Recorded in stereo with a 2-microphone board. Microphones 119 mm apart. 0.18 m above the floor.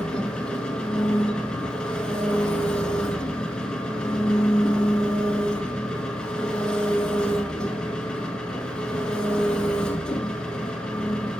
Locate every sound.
0.0 s an engine running: 10° left (ahead or behind), 0.8 m